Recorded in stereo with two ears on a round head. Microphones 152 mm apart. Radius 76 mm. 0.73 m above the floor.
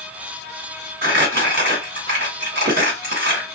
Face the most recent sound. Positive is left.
turn(degrees=-60)  # may be behind; listen again after turning